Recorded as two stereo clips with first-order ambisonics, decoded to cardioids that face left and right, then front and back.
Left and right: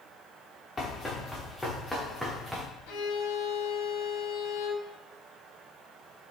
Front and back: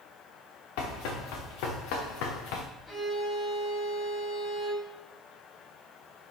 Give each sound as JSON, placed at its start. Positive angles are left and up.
{"t": 0.8, "sound": "running footsteps", "azimuth_deg": 10, "distance_m": 4.0}
{"t": 2.9, "sound": "a violin", "azimuth_deg": 70, "distance_m": 3.0}